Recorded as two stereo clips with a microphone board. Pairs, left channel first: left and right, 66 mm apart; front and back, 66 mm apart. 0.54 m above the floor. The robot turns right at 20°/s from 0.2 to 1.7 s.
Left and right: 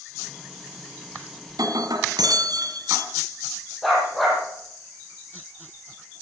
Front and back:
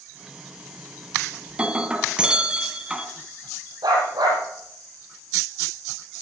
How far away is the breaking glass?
About 1.9 m.